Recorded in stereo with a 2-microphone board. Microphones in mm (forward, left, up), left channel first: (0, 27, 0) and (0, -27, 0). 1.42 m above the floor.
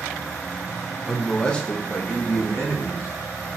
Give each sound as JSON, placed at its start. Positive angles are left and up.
{"t": 1.1, "sound": "a man speaking", "side_deg": 0, "distance_m": 0.7}